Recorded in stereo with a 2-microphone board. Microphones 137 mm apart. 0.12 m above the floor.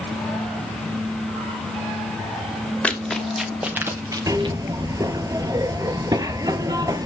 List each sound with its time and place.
2.8 s running footsteps: 10° left (ahead or behind), 2.5 m; by 4.6 s 40° right (ahead or behind), 1.8 m
4.3 s a zipper: 25° right (ahead or behind), 0.6 m